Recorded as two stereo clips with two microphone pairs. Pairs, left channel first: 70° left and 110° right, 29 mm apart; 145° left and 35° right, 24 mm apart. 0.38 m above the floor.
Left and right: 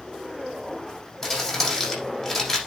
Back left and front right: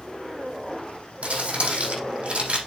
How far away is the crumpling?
About 7 m.